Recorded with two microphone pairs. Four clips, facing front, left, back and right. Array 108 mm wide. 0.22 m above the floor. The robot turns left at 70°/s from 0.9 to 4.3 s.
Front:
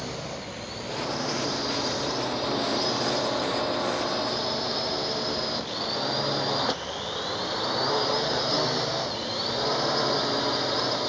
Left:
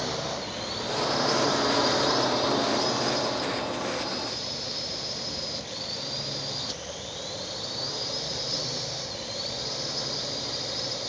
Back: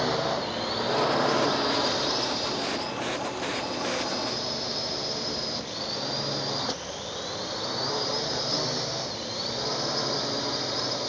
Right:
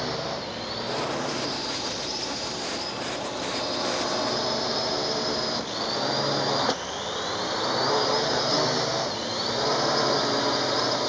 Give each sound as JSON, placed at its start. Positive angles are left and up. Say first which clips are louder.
{"t": 0.0, "sound": "a drone", "louder": "right 2 dB, back 8 dB", "azimuth_deg": 180}